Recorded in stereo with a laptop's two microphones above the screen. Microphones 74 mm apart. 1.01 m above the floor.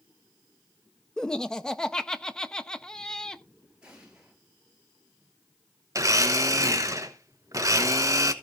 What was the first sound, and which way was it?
Laughter, 10° left (ahead or behind).